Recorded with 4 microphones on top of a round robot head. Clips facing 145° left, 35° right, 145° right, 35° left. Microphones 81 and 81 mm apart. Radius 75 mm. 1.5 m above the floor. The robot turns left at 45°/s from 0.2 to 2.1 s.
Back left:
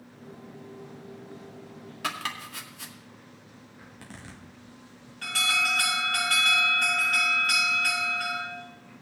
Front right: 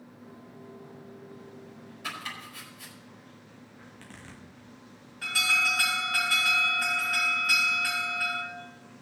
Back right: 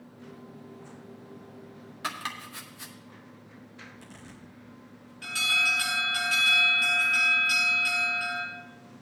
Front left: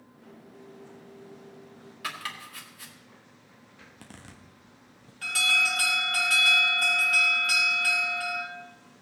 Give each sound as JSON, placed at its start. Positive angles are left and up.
{"t": 2.0, "sound": "chopping", "azimuth_deg": 155, "distance_m": 1.8}
{"t": 3.8, "sound": "a zipper", "azimuth_deg": 70, "distance_m": 1.1}
{"t": 5.2, "sound": "an alarm", "azimuth_deg": 45, "distance_m": 4.5}